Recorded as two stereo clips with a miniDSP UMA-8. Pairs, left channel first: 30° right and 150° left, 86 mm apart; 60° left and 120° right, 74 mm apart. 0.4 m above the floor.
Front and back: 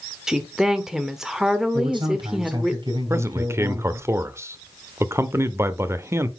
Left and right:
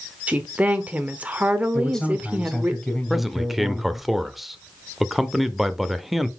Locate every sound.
0.3 s a woman speaking: 140° right, 1.0 m
1.7 s a man speaking: 145° left, 4 m
3.1 s a man speaking: 155° left, 0.9 m